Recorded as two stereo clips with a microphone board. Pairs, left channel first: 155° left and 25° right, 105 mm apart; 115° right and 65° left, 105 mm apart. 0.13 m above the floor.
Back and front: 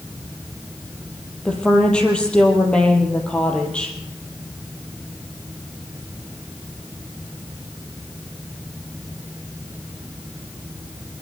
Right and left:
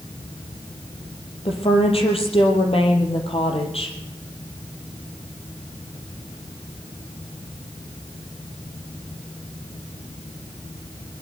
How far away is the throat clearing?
No throat clearing in this recording.